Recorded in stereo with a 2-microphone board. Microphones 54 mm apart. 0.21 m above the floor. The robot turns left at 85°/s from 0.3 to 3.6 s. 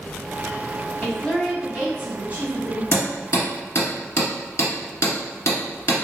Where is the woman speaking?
45° left, 1.1 m; by 2.8 s 105° right, 1.1 m.